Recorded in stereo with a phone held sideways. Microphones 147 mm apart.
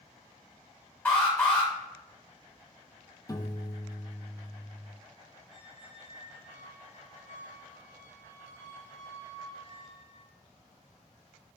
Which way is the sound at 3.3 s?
25° left (ahead or behind).